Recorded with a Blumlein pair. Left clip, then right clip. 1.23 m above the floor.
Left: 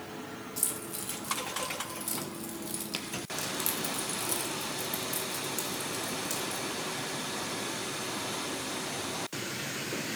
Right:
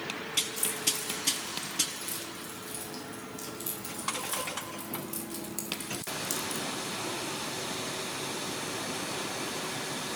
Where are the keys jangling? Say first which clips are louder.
Right 6 dB; 60° left, 3.5 m; by 6.7 s 25° right, 1.7 m.